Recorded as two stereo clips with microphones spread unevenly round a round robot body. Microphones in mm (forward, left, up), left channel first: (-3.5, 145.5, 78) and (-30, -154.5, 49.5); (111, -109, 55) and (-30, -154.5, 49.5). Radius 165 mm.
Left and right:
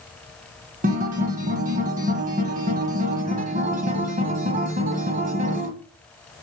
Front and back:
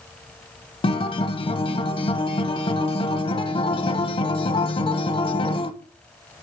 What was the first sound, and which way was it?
A guitar, 30° right.